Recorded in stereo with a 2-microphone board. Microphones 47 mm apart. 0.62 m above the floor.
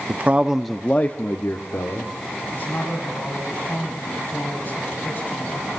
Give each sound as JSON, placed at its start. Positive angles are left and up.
{"t": 0.1, "sound": "a man speaking", "side_deg": -40, "distance_m": 0.9}
{"t": 2.5, "sound": "a man speaking", "side_deg": 40, "distance_m": 5.0}